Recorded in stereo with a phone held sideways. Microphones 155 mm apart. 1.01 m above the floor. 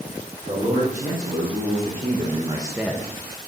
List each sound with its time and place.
0.4 s a man speaking: 65° right (ahead or behind), 3.5 m; by 3.1 s 30° left (ahead or behind), 0.7 m